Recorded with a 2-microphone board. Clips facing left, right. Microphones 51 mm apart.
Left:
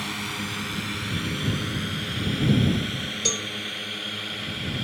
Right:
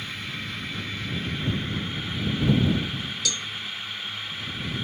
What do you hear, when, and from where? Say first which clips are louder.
0.0 s a drone: left 3 dB; 75° left (ahead or behind); by 4.8 s 65° left (ahead or behind)
3.2 s a cowbell: left 2 dB; 35° left (ahead or behind)